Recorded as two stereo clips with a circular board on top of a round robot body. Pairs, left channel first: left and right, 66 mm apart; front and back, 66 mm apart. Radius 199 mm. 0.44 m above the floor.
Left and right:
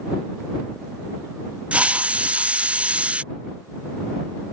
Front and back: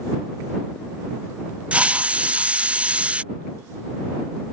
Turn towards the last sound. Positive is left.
turn(degrees=-135)